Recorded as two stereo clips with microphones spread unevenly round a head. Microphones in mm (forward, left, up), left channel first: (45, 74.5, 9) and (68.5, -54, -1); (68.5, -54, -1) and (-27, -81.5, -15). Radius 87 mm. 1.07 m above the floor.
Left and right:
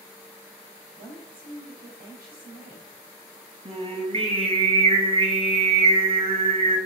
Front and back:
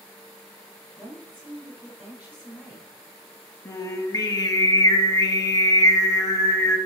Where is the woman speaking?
95° right, 4 m.